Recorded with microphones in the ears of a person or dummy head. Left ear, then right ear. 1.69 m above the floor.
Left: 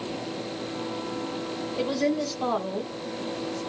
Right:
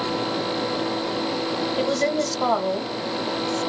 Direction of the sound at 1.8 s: 45° right (ahead or behind).